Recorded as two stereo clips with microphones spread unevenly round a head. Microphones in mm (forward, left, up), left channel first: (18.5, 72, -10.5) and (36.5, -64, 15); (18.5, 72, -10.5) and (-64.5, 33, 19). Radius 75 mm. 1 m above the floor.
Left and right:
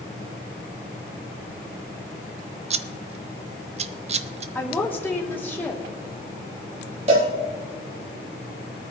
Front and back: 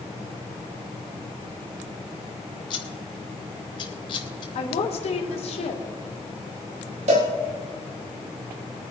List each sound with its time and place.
2.7 s scissors: 35° right, 0.7 m
4.5 s a woman speaking: 20° left, 2.5 m
7.1 s a cowbell: 135° right, 3.5 m